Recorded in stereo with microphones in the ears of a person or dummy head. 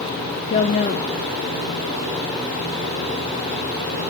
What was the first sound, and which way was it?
A woman speaking, 40° left (ahead or behind).